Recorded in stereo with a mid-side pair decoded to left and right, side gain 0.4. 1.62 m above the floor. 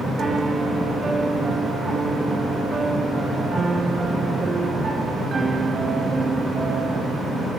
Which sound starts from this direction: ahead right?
A piano, at 0.2 s.